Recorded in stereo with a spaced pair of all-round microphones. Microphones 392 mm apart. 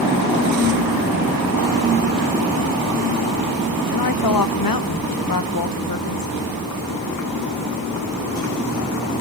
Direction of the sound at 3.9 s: 60° left (ahead or behind).